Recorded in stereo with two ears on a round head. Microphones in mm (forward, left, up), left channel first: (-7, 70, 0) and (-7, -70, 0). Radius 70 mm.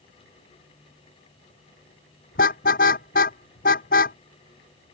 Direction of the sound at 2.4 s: 60° left (ahead or behind).